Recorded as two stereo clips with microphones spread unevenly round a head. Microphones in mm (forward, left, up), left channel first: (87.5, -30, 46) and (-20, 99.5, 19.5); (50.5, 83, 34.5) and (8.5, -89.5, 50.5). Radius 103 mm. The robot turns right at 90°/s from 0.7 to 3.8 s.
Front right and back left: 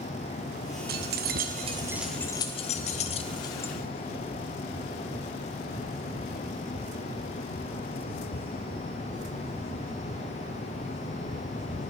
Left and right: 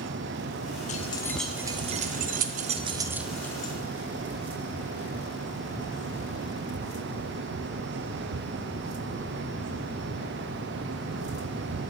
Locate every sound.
0.9 s keys jangling: 120° left, 0.8 m; by 3.7 s 20° left, 0.8 m